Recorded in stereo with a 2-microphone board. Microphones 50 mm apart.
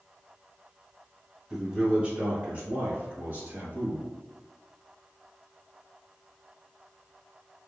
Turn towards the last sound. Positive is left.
turn(degrees=-45)  # may be behind; listen again after turning